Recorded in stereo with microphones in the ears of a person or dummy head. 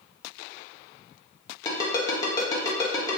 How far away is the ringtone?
About 1.1 m.